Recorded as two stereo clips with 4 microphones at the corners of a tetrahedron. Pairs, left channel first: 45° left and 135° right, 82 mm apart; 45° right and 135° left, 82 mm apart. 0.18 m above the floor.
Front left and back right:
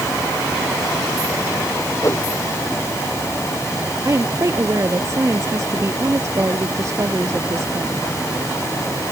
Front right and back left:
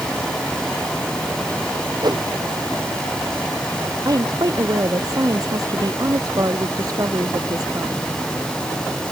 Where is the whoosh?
100° left.